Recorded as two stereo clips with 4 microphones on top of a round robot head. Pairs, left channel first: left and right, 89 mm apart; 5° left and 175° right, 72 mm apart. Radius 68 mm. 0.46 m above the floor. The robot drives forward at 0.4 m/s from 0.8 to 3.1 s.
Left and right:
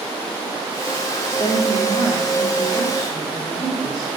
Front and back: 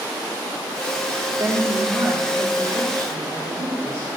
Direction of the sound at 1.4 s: 130° left.